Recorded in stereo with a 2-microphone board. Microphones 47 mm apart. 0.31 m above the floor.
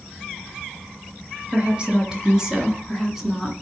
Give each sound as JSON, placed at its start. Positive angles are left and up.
{"t": 1.5, "sound": "a woman speaking", "side_deg": -20, "distance_m": 4.0}